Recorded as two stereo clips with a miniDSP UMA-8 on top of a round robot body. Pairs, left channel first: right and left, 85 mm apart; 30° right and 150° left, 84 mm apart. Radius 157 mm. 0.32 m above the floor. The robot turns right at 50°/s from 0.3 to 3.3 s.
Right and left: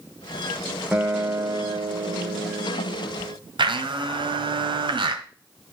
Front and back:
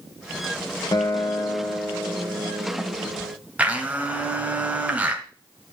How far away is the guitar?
About 1.7 m.